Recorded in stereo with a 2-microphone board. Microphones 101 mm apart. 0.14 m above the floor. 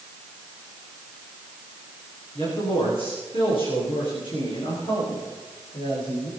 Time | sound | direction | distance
2.4 | a man speaking | 60° left (ahead or behind) | 9.5 m